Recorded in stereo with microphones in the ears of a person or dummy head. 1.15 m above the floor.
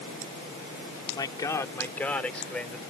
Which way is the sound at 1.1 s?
20° left (ahead or behind).